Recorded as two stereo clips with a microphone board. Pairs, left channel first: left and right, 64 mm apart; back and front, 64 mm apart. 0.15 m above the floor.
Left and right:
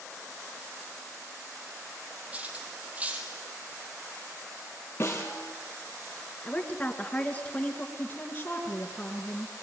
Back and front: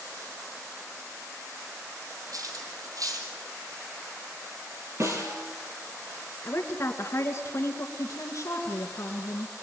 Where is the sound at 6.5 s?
150° left, 2.5 m.